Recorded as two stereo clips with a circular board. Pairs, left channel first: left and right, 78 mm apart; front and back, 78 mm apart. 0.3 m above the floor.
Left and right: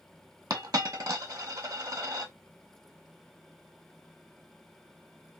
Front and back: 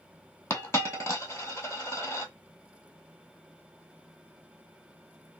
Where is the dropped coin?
55° right, 1.1 m.